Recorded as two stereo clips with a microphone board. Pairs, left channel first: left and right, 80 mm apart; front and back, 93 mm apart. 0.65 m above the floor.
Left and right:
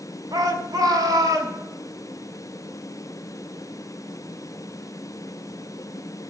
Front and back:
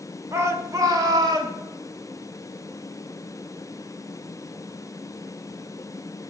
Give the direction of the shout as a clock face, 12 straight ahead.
4 o'clock.